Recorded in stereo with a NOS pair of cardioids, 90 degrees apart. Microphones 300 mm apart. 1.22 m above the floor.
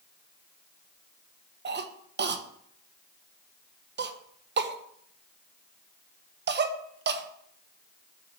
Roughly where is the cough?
Ahead right.